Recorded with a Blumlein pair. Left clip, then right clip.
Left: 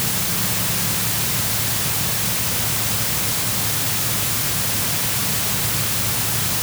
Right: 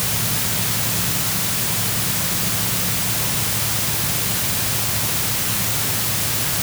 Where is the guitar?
No guitar in this recording.